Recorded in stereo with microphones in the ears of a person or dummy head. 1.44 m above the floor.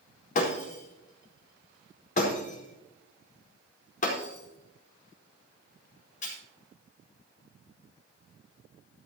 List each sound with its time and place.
0.3 s breaking glass: 55° left (ahead or behind), 4.5 m